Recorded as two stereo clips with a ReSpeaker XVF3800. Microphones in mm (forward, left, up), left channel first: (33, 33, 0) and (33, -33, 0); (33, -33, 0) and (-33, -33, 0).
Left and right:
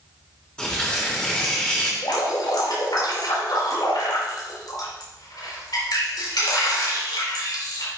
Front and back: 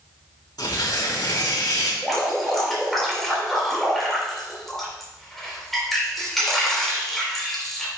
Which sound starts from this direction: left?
Dripping, at 2.0 s.